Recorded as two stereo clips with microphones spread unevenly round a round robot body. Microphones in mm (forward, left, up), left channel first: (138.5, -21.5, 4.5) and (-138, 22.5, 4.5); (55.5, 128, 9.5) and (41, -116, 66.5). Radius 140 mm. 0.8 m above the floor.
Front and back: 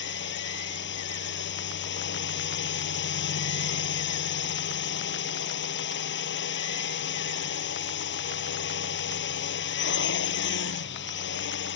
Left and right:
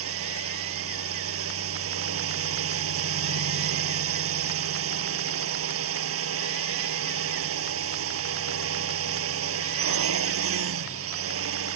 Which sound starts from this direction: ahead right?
A drone, at 0.0 s.